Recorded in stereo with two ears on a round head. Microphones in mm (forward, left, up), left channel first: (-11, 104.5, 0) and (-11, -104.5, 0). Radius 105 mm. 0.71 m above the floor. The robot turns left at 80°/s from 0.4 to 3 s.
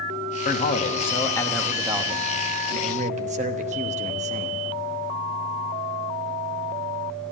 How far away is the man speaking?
About 1.0 m.